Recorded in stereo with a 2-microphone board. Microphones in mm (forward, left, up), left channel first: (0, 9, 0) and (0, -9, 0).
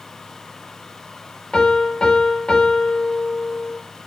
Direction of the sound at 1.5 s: 45° left (ahead or behind).